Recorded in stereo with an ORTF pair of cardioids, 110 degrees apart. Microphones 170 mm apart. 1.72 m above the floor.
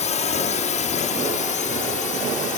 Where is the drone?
45° left; by 2.6 s 50° left.